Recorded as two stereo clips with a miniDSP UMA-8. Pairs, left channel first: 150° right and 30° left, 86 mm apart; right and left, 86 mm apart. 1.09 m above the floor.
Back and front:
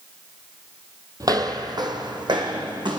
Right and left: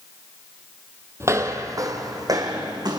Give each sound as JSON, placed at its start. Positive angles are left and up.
{"t": 1.2, "sound": "footsteps", "azimuth_deg": 50, "distance_m": 1.4}